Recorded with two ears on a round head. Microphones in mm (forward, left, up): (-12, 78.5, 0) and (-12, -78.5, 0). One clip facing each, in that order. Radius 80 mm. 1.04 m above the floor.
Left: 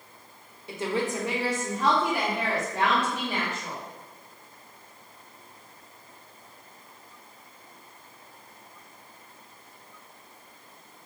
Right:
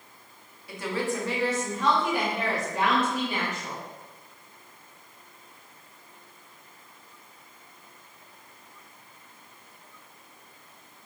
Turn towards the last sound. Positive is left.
turn(degrees=-10)  # may be behind; listen again after turning